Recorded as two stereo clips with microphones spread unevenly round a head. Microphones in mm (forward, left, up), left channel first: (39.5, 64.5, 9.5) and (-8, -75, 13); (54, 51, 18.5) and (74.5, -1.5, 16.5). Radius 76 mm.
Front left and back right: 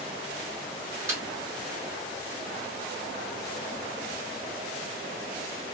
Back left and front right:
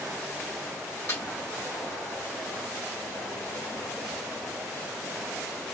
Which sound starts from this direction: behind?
A snare drum, at 1.1 s.